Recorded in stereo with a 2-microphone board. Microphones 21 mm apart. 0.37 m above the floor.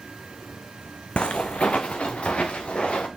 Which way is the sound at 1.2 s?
55° left (ahead or behind).